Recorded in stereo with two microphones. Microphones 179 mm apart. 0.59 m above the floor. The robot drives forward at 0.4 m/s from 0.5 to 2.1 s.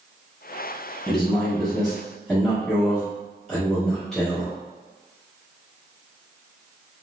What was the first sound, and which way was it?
A man speaking, 5° left (ahead or behind).